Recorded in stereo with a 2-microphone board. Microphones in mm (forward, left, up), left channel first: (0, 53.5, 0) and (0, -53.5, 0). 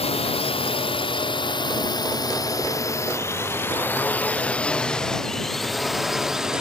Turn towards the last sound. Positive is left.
turn(degrees=-5)  # may be behind; listen again after turning